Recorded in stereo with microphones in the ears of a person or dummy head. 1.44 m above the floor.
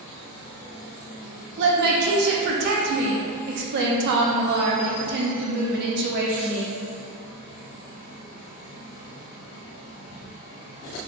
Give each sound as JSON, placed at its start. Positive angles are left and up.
{"t": 1.6, "sound": "a woman speaking", "side_deg": -60, "distance_m": 0.6}